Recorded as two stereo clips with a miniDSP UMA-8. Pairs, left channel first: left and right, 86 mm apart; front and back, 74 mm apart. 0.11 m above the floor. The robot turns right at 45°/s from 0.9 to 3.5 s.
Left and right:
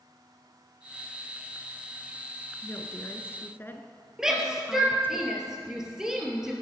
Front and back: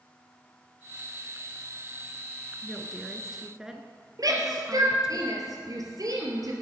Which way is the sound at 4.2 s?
170° right.